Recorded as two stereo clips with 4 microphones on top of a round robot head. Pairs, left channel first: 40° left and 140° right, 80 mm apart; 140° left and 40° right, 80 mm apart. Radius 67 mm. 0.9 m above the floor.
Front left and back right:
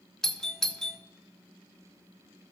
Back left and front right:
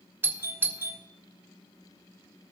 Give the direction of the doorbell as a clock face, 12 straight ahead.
1 o'clock.